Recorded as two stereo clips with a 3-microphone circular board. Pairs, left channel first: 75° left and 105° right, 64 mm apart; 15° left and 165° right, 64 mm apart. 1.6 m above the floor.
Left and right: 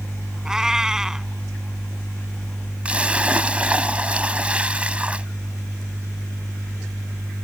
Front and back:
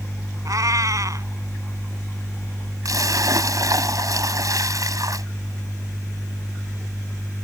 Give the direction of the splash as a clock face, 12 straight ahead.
6 o'clock.